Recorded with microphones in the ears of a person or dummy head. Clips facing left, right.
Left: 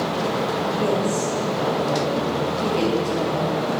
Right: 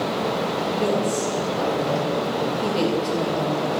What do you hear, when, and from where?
0.7 s a woman speaking: 15° right (ahead or behind), 2 m